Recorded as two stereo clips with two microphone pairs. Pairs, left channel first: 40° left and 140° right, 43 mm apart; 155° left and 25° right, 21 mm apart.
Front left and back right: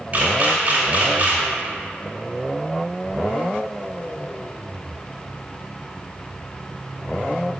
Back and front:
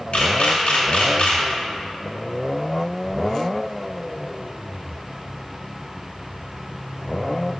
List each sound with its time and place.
0.1 s a camera shutter: 165° left, 1.9 m